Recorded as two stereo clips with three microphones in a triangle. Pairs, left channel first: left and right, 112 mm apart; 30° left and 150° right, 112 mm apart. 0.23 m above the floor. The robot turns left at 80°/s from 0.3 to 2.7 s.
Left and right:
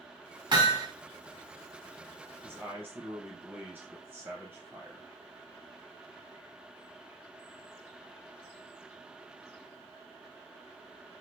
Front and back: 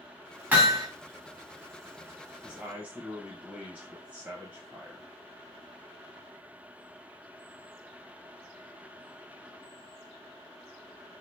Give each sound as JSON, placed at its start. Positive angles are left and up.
{"t": 0.5, "sound": "hammering", "azimuth_deg": -80, "distance_m": 1.3}
{"t": 2.4, "sound": "a man speaking", "azimuth_deg": -80, "distance_m": 0.9}